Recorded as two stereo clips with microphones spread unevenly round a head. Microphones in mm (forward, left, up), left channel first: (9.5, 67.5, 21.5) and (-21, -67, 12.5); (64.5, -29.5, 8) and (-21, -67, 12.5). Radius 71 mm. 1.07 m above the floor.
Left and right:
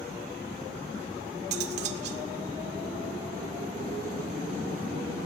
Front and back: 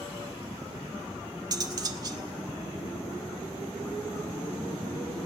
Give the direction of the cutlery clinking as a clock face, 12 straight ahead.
4 o'clock.